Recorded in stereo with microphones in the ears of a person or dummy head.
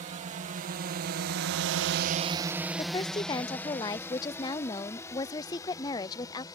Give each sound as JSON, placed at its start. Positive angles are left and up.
{"t": 0.0, "sound": "a drone", "side_deg": -40}
{"t": 2.8, "sound": "a woman speaking", "side_deg": 20}